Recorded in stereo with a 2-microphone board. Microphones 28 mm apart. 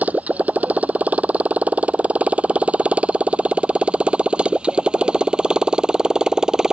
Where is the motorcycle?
60° right (ahead or behind); by 6.7 s 20° right (ahead or behind).